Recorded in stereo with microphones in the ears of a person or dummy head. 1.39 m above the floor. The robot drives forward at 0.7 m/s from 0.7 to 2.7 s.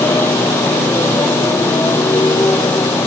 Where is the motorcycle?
15° left (ahead or behind); by 3.1 s 10° left (ahead or behind).